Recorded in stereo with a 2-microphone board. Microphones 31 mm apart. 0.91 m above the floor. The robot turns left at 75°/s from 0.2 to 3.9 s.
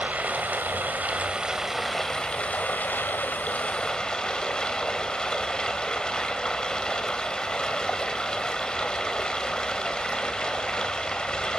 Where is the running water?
60° right, 1.7 m; by 11.6 s 25° left, 1.7 m.